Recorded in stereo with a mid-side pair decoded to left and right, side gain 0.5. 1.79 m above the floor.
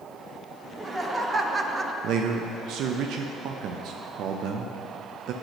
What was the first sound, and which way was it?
Laughter, 25° right.